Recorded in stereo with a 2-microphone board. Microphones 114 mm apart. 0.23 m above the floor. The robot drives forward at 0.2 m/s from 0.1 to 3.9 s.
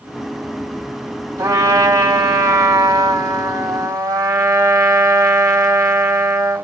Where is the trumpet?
30° right (ahead or behind), 1.7 m.